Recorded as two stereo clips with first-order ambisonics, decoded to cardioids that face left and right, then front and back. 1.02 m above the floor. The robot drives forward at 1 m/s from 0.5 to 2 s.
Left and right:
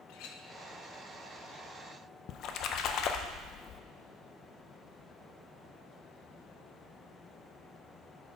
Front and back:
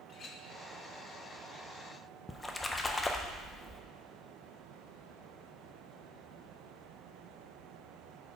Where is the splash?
75° left, 0.5 m.